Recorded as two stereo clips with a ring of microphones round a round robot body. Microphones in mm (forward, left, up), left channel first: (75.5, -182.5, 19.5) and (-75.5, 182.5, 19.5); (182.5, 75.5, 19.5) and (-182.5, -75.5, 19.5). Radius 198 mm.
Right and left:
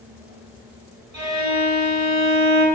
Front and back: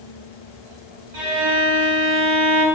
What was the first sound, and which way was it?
A violin, 160° left.